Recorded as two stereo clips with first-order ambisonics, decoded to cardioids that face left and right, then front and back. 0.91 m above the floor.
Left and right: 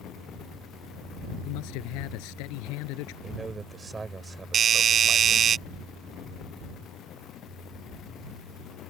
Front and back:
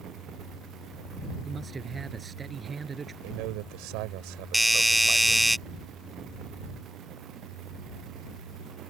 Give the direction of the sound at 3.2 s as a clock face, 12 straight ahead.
6 o'clock.